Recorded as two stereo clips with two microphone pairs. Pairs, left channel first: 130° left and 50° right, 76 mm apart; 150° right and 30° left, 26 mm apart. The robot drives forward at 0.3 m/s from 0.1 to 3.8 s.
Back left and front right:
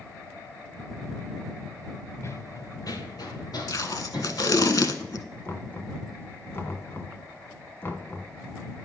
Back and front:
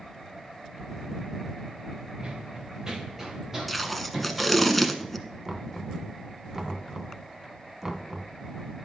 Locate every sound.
2.2 s running footsteps: 80° left, 0.9 m; by 4.7 s 110° left, 4 m
3.7 s tape being pulled: 130° left, 0.7 m; by 5.2 s 135° left, 0.7 m
5.5 s knocking: 105° left, 0.9 m